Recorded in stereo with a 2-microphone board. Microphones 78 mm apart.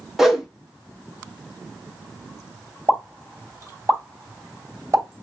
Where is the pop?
45° right (ahead or behind), 3 m.